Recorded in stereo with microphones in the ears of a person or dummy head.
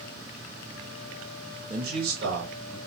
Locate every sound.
1.7 s a man speaking: 85° right, 2.5 m; by 2.8 s 60° right (ahead or behind), 2.5 m